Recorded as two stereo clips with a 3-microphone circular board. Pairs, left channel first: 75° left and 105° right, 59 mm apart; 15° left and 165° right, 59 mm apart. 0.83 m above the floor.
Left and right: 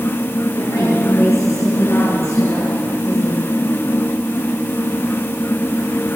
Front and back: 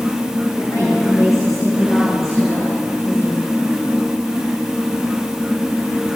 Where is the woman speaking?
50° left, 9 m; by 3.4 s 45° left, 12 m.